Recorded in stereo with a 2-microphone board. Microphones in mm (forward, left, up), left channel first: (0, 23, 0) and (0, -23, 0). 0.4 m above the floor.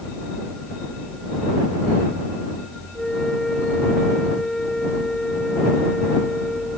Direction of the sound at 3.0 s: 10° left (ahead or behind).